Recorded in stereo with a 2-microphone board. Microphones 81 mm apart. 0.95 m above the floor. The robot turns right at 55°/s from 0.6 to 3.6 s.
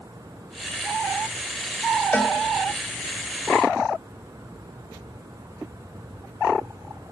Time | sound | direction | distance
2.1 | a cowbell | 20° left (ahead or behind) | 1.4 m